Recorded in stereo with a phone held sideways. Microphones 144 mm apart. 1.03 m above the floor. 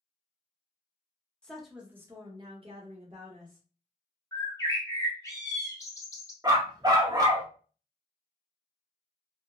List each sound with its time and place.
1.4 s a woman speaking: 5° left (ahead or behind), 0.8 m; by 3.6 s 70° right (ahead or behind), 1.0 m
4.3 s a bird: 20° left (ahead or behind), 0.7 m
6.4 s a dog barking: 25° right (ahead or behind), 0.6 m